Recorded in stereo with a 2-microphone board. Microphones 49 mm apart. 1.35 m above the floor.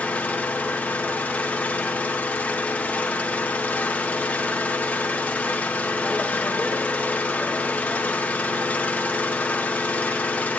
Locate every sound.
0.0 s an engine running: 30° left (ahead or behind), 1.5 m